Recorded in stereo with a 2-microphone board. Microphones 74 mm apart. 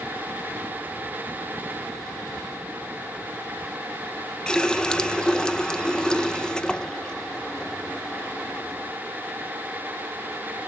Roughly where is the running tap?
Centre.